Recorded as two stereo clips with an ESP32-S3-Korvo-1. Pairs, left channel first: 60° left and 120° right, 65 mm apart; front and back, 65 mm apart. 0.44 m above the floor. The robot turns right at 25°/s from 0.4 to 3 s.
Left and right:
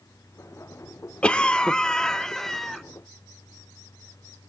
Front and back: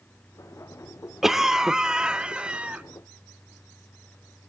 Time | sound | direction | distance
1.2 | a cough | 100° left | 0.9 m